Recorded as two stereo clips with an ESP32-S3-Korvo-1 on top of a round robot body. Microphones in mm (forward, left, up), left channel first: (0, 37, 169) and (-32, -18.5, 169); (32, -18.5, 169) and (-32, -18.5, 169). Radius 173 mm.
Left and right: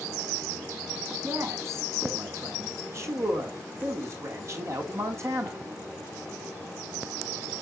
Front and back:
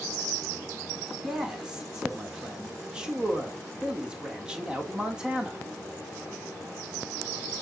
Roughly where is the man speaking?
Right.